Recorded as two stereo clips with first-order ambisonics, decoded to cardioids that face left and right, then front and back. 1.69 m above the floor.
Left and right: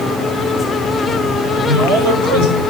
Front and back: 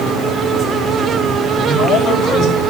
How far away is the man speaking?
About 6.5 m.